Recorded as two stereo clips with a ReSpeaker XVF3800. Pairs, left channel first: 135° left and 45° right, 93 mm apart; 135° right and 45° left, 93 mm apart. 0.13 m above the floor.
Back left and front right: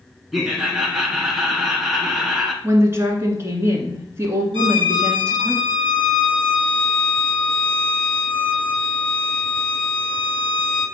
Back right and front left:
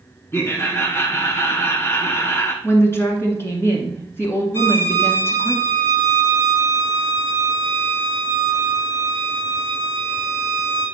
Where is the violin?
70° right, 2.0 m.